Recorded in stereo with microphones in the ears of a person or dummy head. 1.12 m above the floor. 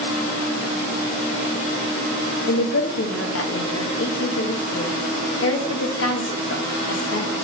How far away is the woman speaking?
About 1.1 m.